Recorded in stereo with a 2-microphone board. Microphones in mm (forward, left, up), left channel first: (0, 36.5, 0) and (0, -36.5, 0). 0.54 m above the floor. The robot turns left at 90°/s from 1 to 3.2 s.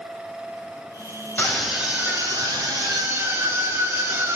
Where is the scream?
25° left, 3.5 m; by 4.4 s 140° right, 3.5 m.